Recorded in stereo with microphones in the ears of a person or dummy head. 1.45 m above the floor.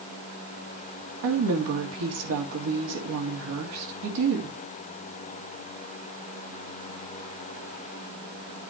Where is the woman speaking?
80° right, 2 m.